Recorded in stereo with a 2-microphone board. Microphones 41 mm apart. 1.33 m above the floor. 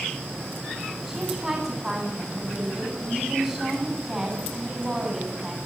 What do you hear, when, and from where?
1.1 s a woman speaking: 10° right (ahead or behind), 9 m